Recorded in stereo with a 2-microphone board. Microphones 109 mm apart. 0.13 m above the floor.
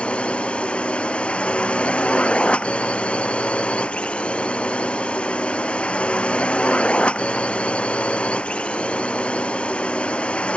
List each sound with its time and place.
0.0 s a drone: 10° left (ahead or behind)